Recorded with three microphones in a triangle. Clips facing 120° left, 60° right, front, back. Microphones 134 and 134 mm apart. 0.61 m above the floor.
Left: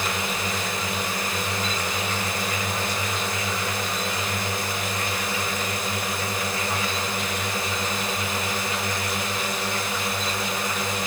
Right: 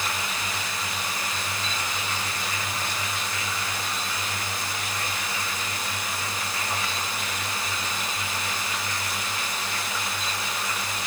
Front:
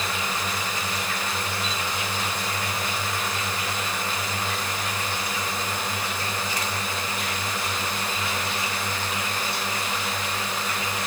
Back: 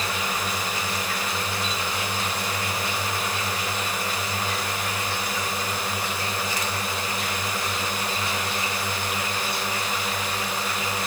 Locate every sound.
0.0 s a drone: 100° left